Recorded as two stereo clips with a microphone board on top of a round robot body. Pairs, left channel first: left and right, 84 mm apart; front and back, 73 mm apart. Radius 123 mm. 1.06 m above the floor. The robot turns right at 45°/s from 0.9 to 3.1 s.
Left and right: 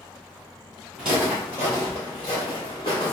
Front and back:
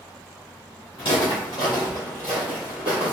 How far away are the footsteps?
About 1.5 m.